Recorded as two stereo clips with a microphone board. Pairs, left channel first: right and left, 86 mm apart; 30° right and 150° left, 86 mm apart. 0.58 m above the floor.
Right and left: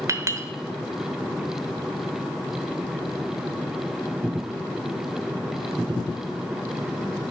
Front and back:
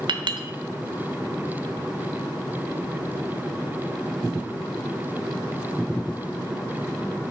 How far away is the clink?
About 0.9 m.